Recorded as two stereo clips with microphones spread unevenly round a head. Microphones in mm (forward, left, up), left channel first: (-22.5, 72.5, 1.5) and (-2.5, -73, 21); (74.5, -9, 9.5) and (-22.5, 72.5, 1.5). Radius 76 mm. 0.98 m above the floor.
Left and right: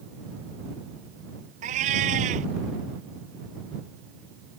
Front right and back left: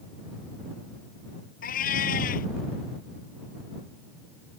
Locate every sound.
1.6 s a cat meowing: 40° right